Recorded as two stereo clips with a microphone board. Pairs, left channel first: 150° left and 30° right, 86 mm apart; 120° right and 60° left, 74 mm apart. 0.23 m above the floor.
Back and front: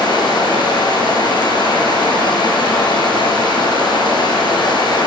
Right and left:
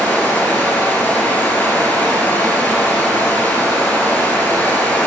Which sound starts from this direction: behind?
Running water, at 0.0 s.